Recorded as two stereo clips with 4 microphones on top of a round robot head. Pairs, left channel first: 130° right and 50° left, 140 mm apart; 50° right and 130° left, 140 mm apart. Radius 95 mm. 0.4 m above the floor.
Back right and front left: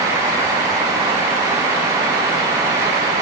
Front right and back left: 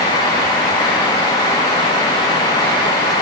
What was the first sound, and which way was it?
Only background noise.